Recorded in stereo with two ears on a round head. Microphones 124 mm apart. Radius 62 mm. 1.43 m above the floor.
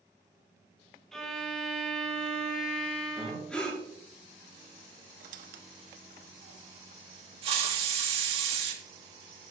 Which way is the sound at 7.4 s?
45° right (ahead or behind).